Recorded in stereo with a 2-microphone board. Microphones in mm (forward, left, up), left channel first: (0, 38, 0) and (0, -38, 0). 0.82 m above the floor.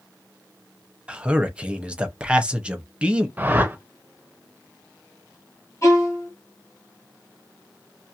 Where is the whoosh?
25° right (ahead or behind), 0.6 m.